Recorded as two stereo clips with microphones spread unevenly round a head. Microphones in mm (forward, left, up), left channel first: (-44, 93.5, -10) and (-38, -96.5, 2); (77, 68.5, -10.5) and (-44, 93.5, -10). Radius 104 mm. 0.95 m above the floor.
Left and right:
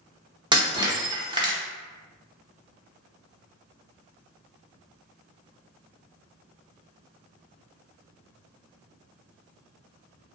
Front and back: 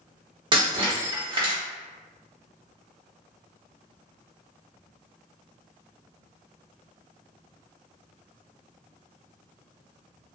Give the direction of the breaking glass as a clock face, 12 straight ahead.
5 o'clock.